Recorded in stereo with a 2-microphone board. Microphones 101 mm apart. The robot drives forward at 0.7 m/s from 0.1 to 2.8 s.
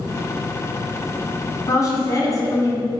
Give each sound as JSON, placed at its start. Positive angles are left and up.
{"t": 1.7, "sound": "a woman speaking", "side_deg": 35, "distance_m": 2.0}